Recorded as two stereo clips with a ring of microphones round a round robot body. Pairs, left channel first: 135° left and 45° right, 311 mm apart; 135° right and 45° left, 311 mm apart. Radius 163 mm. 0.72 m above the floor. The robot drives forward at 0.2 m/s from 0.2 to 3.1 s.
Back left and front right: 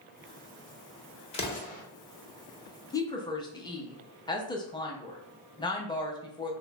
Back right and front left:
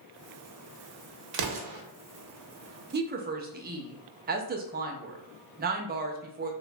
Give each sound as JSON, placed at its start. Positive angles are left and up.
{"t": 1.3, "sound": "an explosion", "azimuth_deg": 60, "distance_m": 0.7}
{"t": 2.9, "sound": "a woman speaking", "azimuth_deg": 65, "distance_m": 0.5}